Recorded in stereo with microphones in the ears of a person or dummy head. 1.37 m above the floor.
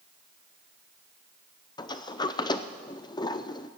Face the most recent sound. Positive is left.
turn(degrees=15)  # may be behind; listen again after turning